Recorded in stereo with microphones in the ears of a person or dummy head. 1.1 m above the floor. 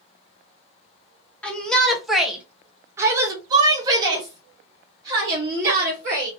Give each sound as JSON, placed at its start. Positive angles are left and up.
{"t": 1.4, "sound": "a shout", "side_deg": 10, "distance_m": 1.0}